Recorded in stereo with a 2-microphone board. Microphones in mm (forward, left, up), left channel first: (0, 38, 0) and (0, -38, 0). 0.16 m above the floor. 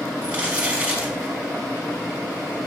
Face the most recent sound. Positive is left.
turn(degrees=-20)  # may be behind; listen again after turning